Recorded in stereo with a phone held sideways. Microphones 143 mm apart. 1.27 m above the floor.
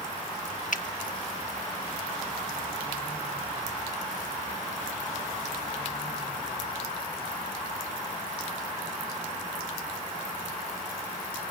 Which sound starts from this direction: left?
A finger snap, at 0.7 s.